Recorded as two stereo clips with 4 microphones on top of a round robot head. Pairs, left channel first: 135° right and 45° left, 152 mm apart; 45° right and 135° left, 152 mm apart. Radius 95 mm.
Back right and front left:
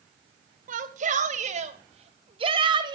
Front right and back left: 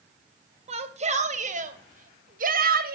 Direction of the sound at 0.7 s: 85° left.